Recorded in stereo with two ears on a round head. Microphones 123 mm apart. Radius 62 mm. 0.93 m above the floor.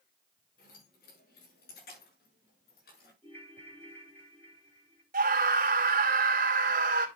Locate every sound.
0.6 s keys jangling: 70° left (ahead or behind), 7.5 m; by 3.1 s 85° left, 7.5 m
3.2 s a ringtone: 15° left (ahead or behind), 3 m
5.1 s a scream: 65° right (ahead or behind), 2.5 m